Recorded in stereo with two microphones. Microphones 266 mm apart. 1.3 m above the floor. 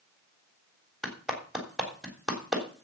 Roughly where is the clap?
Centre.